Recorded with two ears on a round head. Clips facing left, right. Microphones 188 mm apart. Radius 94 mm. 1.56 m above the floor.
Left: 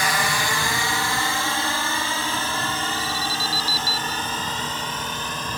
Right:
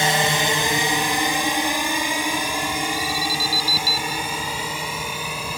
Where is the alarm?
75° right (ahead or behind).